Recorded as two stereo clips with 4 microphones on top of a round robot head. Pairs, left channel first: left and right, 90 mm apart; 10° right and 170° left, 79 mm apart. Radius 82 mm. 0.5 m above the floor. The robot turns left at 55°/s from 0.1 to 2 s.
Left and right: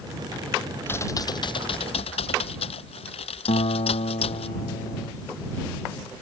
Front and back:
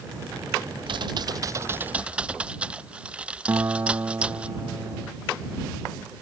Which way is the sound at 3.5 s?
105° left.